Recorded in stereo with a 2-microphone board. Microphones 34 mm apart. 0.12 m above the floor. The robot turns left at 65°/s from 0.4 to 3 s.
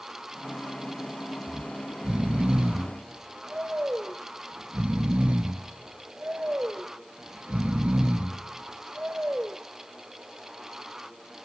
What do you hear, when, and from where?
1.5 s snoring: 10° right (ahead or behind), 1.2 m; by 9.6 s 40° right (ahead or behind), 1.2 m